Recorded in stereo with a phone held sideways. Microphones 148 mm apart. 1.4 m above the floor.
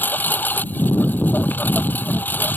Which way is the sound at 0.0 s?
10° left (ahead or behind).